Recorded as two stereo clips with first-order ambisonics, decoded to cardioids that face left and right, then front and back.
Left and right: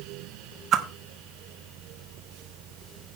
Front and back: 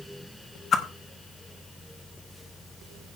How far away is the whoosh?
About 1.3 m.